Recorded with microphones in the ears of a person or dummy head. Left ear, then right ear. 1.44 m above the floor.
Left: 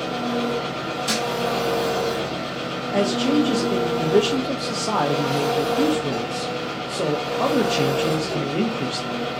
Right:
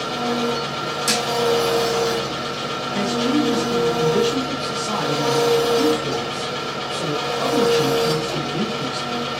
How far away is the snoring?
No snoring in this recording.